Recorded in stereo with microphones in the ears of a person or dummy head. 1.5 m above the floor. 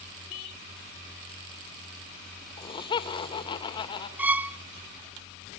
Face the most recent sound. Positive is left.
turn(degrees=-5)  # may be behind; listen again after turning